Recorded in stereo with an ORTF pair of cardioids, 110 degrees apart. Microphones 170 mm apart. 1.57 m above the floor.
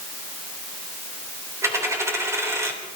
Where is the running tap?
I don't hear a running tap.